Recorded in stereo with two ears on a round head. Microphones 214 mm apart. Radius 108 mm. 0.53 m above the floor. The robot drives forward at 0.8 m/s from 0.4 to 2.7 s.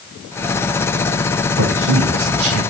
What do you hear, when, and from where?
1.6 s a man speaking: 50° right (ahead or behind), 2.5 m; by 2.6 s 65° right (ahead or behind), 2 m